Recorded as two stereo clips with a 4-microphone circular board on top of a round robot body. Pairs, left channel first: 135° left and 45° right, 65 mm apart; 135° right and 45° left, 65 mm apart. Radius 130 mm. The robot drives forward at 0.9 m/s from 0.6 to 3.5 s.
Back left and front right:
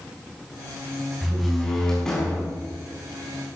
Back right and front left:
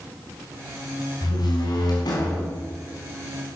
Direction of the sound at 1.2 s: 135° right.